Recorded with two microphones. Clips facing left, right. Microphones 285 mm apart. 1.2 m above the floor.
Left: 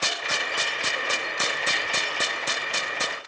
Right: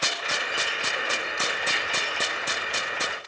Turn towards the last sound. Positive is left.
turn(degrees=-5)  # may be behind; listen again after turning